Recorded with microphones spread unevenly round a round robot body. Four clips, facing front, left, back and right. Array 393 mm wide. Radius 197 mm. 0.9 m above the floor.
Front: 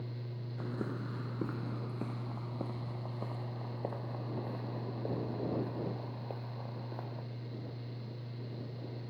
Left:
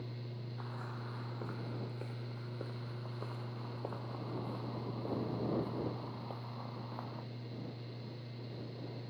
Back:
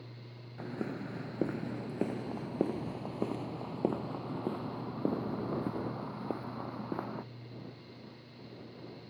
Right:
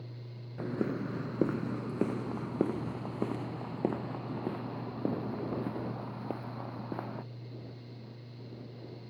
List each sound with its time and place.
0.6 s footsteps: 95° right; by 7.2 s 145° right